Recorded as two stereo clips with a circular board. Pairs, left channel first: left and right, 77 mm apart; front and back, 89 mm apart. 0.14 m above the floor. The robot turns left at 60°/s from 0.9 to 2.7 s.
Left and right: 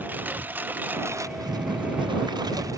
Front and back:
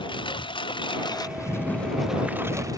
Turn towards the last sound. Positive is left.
turn(degrees=-130)